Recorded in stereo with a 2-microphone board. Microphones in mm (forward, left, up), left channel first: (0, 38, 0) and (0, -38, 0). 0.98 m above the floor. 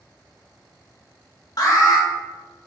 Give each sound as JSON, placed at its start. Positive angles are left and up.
{"t": 1.6, "sound": "an alarm", "side_deg": 55, "distance_m": 1.2}